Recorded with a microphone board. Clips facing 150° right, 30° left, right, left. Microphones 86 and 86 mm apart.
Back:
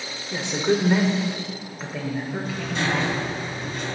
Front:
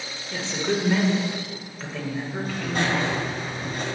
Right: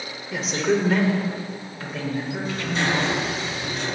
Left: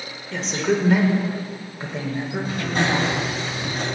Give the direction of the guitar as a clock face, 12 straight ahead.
No guitar in this recording.